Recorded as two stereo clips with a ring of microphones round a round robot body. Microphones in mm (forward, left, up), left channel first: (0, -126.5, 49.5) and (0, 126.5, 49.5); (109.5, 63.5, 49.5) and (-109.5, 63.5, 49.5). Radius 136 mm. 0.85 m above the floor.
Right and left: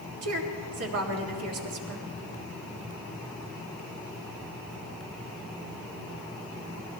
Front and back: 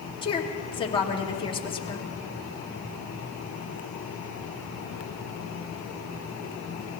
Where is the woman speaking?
65° left, 2 m.